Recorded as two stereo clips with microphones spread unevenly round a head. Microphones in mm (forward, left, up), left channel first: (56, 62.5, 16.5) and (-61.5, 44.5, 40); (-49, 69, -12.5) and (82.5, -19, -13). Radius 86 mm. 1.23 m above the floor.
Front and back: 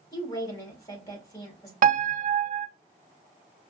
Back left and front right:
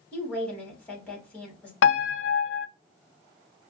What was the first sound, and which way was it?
A woman speaking, 65° left.